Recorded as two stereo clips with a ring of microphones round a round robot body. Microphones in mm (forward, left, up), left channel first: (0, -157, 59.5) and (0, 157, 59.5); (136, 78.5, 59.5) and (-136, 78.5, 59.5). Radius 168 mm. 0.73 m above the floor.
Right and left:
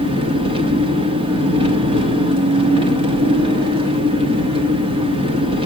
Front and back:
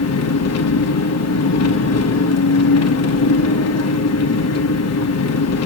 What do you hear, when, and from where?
0.0 s an engine running: 20° left, 1.2 m